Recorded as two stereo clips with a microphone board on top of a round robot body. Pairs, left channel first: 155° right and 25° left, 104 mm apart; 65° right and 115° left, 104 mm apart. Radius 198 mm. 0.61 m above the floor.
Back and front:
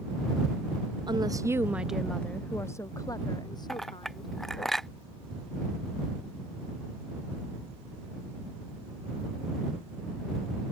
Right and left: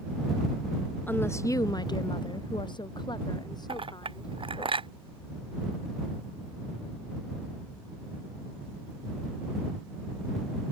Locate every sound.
1.1 s a woman speaking: straight ahead; by 4.7 s 120° right
3.7 s a clink: 115° left